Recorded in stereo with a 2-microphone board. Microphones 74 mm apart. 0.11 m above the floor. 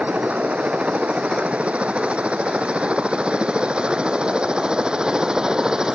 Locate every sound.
0.0 s a helicopter: 20° right (ahead or behind); by 6.0 s 10° right (ahead or behind)